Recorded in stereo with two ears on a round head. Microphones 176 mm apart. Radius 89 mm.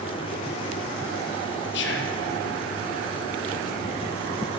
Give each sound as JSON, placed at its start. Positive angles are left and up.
{"t": 1.7, "sound": "whispering", "side_deg": 60, "distance_m": 0.7}